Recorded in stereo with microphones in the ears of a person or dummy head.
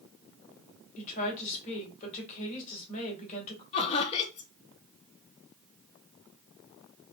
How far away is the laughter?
About 0.5 m.